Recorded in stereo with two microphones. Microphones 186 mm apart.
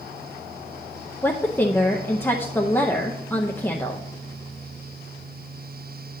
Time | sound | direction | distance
1.2 | a woman speaking | 10° left (ahead or behind) | 0.6 m